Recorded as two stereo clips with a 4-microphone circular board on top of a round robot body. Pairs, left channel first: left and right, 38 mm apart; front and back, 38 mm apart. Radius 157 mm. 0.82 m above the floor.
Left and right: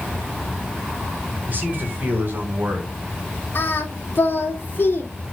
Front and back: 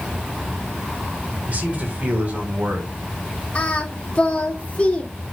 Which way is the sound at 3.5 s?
55° left.